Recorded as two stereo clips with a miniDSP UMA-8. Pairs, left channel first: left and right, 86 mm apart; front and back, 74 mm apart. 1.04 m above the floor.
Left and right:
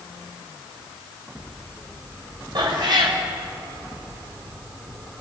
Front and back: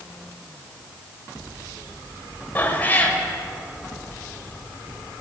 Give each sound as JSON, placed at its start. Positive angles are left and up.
{"t": 2.5, "sound": "a cat meowing", "azimuth_deg": -65, "distance_m": 2.0}